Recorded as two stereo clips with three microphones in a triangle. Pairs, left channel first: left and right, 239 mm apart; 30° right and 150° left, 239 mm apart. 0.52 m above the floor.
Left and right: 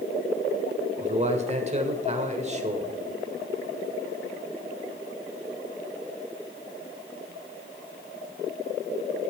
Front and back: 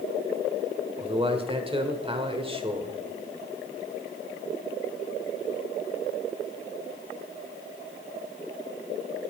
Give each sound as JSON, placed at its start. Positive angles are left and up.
{"t": 1.0, "sound": "a man speaking", "azimuth_deg": -145, "distance_m": 1.4}